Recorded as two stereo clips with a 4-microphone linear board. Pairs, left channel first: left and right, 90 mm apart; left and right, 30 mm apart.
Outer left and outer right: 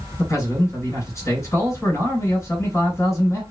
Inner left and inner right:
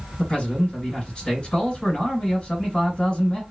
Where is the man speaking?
35° left (ahead or behind), 2.0 m.